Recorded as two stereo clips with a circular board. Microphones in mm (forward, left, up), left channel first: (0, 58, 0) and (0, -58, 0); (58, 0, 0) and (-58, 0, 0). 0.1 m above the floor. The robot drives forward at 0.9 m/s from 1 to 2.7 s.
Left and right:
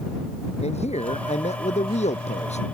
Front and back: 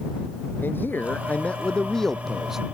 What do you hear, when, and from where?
0.6 s a man speaking: 75° left; by 2.6 s 95° left